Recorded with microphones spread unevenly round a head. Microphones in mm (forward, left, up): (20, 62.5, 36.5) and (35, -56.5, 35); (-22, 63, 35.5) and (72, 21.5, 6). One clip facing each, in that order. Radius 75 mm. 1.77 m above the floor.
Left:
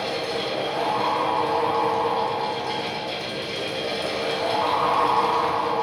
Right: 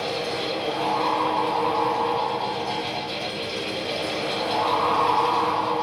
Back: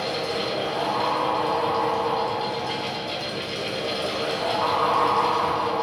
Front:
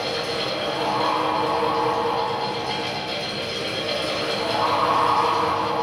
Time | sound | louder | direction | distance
0.0 | a fan | even, even | 85° left | 1.5 m